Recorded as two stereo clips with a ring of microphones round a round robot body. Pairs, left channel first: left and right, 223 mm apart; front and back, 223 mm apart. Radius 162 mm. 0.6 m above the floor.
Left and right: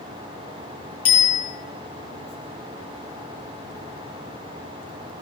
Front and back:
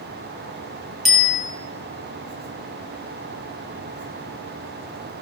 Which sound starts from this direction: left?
A bicycle bell, at 1.1 s.